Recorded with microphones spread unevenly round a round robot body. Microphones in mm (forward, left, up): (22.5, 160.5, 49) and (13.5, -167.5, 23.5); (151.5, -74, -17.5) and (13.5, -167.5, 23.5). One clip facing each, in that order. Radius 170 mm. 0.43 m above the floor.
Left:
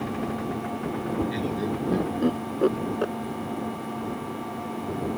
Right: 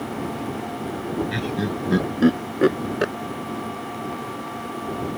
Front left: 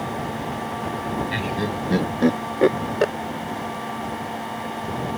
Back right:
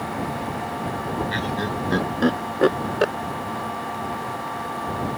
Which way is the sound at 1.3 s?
35° right.